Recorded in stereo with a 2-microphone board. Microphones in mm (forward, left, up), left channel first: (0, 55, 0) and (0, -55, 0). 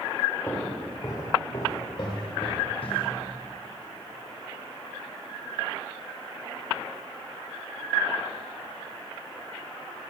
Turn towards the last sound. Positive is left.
turn(degrees=60)  # may be behind; listen again after turning